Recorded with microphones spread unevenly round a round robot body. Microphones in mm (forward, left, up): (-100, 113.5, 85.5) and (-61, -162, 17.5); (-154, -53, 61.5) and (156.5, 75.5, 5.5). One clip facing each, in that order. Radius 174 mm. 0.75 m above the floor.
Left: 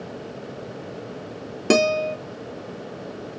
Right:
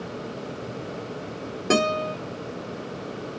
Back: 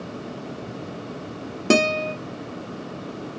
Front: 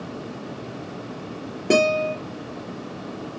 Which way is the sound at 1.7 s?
140° left.